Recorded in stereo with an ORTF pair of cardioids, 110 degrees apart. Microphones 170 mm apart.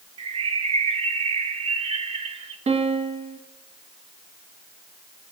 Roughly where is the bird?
Ahead right.